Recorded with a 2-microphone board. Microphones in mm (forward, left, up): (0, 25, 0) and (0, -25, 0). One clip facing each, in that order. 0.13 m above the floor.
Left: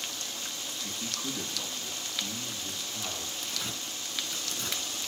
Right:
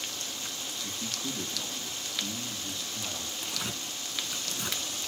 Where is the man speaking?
15° left (ahead or behind), 5 m; by 3.3 s 30° left (ahead or behind), 4 m.